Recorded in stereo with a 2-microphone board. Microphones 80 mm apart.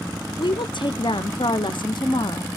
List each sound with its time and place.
0.4 s a woman speaking: 75° left (ahead or behind), 0.6 m